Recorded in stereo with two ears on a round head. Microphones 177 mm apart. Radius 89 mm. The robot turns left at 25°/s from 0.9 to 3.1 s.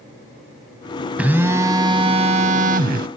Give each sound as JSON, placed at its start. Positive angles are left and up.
{"t": 1.2, "sound": "a phone buzzing", "azimuth_deg": -10, "distance_m": 0.5}